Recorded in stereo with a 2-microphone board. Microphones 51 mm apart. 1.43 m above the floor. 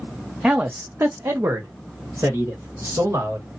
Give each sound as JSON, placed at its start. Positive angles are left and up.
{"t": 0.4, "sound": "a man speaking", "side_deg": -25, "distance_m": 0.7}